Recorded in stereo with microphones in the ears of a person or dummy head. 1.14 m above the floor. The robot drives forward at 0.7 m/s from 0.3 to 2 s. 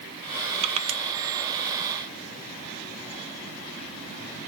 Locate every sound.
0.6 s crushing: 35° right (ahead or behind), 0.6 m